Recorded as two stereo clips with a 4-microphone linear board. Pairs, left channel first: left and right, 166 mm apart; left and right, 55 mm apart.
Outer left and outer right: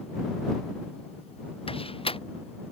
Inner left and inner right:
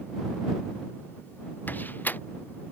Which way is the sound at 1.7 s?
35° left (ahead or behind).